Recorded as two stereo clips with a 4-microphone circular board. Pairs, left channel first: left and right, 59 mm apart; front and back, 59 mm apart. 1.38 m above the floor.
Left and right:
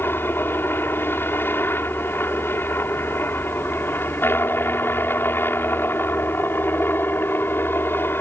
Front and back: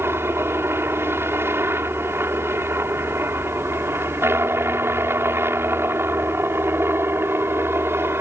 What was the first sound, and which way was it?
A helicopter, 140° left.